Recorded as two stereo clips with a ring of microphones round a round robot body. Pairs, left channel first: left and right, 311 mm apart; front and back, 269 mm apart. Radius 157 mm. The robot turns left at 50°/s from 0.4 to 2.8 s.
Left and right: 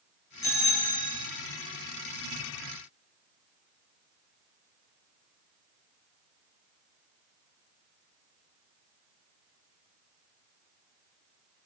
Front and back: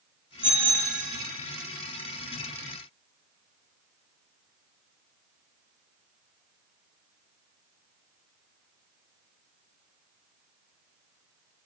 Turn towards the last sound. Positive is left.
turn(degrees=165)